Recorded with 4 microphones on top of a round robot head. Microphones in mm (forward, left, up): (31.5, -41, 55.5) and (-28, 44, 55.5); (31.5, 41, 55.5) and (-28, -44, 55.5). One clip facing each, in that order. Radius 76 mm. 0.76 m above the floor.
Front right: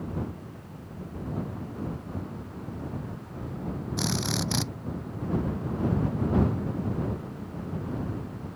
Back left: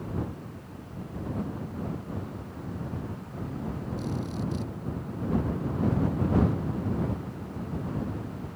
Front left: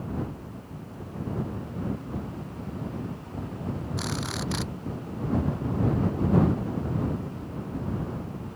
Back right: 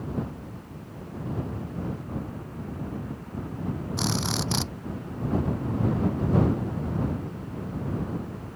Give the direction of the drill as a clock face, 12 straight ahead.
2 o'clock.